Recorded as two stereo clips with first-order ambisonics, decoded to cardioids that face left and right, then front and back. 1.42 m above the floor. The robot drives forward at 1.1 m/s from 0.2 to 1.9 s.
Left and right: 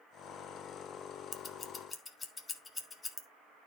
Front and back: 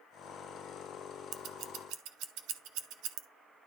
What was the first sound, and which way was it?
Scissors, 145° left.